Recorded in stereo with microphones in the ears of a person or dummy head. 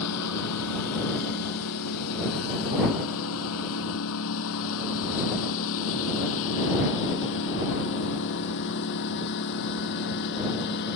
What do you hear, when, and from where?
0.0 s a lawn mower: 85° left; by 11.0 s 55° left (ahead or behind)